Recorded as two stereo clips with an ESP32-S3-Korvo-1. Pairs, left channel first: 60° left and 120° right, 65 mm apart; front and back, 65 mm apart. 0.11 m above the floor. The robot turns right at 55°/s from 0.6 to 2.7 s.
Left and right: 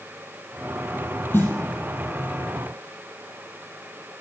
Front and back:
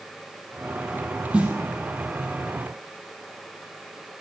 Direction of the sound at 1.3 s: 105° left.